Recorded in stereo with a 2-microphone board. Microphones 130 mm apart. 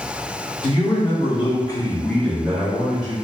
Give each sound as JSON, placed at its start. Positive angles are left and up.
{"t": 0.6, "sound": "a man speaking", "side_deg": 35, "distance_m": 0.9}